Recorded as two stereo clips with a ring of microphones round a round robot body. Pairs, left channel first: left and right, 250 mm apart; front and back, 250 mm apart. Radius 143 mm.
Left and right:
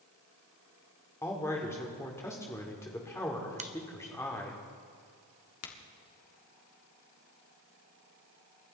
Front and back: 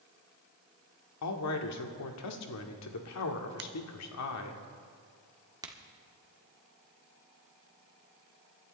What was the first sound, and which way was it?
A man speaking, 10° left.